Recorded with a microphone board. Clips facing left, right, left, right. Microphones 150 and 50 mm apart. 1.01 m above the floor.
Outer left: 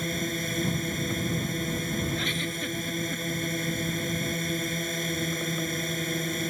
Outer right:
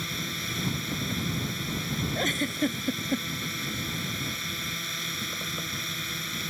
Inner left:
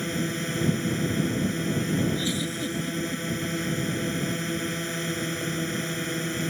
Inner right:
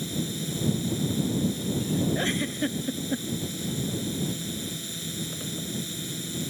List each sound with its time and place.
0.0 s a drone: 45° left (ahead or behind)
2.1 s a giggle: 45° right (ahead or behind)